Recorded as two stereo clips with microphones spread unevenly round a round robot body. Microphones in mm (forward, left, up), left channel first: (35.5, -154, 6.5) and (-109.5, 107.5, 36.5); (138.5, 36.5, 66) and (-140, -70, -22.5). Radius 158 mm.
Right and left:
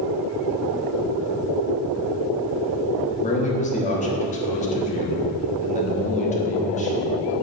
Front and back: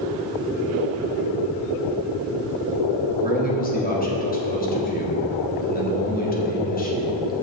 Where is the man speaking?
45° right, 1.1 m.